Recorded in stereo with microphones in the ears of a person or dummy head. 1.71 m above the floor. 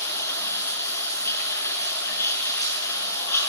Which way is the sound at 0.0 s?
10° left (ahead or behind).